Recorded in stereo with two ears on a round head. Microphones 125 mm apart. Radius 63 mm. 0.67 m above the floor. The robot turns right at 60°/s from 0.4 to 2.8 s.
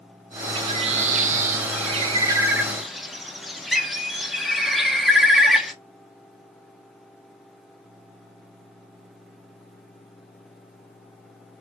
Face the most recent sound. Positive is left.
turn(degrees=0)